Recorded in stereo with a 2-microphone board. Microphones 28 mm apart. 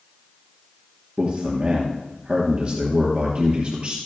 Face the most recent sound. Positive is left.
turn(degrees=-40)  # may be behind; listen again after turning